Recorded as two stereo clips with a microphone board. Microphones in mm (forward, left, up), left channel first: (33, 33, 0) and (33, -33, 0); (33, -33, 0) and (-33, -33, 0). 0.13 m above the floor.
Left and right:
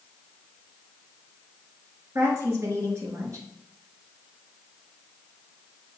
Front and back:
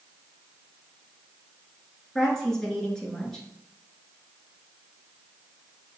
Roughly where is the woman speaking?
Right.